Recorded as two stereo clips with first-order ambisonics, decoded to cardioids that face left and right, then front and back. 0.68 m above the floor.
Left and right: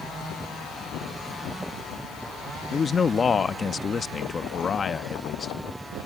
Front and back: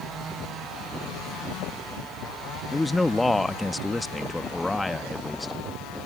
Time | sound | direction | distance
2.7 | a man speaking | 75° left | ?